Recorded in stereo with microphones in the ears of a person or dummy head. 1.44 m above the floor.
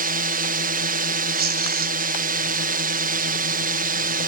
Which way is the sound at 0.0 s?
55° right (ahead or behind).